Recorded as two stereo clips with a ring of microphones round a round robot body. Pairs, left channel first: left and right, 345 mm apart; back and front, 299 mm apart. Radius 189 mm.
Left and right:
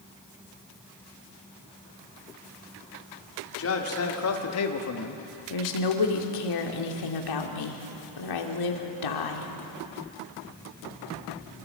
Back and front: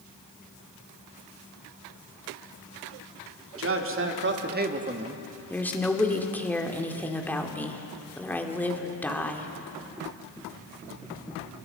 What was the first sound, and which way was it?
A man speaking, 40° left.